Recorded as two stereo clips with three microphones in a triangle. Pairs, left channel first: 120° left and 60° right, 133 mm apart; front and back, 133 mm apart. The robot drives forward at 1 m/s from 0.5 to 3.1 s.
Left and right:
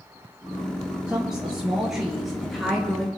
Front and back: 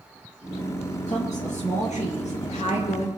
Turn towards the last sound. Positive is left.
turn(degrees=35)